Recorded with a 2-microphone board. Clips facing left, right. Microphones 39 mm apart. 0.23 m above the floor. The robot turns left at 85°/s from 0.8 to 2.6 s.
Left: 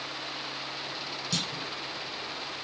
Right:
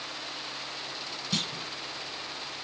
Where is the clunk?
20° right (ahead or behind), 1.8 m; by 1.7 s 35° right (ahead or behind), 1.8 m.